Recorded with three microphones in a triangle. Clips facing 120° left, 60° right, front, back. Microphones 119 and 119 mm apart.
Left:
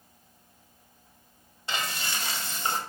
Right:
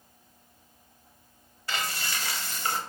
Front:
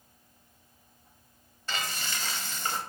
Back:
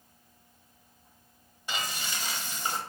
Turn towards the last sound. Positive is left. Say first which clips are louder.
# even, even
turn(degrees=130)